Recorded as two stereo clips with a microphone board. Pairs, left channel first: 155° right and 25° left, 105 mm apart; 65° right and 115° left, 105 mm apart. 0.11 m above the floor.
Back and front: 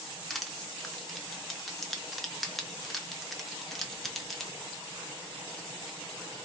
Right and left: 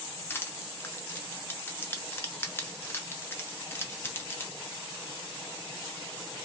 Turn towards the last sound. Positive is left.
turn(degrees=-75)